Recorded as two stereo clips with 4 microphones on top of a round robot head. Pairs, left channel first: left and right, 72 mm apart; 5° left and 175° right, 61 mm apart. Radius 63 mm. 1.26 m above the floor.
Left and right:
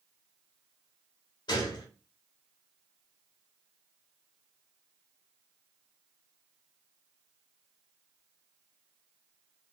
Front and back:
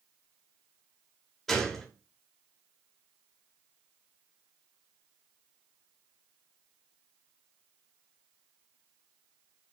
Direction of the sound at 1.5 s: 95° left.